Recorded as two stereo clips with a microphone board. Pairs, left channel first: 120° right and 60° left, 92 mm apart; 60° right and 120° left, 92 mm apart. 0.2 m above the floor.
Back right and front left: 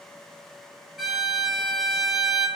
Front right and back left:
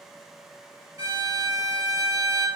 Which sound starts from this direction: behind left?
A violin, at 1.0 s.